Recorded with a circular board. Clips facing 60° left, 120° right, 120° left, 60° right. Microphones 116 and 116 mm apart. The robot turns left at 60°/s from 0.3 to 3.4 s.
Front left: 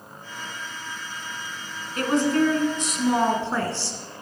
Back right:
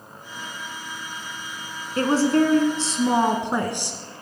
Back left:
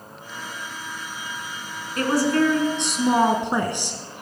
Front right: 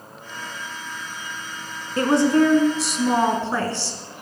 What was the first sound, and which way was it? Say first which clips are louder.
A woman speaking: back right 2 dB, front right 3 dB; 95° right.